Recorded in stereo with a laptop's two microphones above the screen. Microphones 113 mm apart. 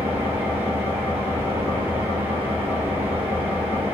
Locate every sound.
0.0 s an engine running: 15° right (ahead or behind), 1.7 m